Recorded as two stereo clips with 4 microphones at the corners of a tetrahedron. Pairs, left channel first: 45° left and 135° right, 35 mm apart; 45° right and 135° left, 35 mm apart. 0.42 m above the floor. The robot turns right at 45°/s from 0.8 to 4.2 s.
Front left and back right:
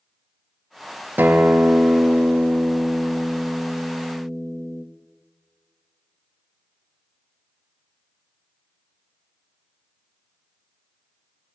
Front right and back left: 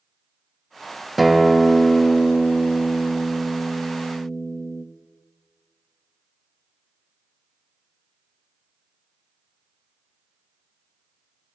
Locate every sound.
1.2 s a guitar: 135° right, 0.7 m; by 4.8 s straight ahead, 0.7 m